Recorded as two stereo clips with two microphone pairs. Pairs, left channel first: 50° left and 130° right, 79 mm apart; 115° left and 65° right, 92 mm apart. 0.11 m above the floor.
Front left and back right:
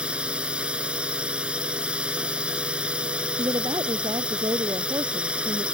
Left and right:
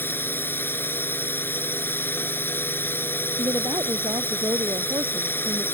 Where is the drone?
165° left.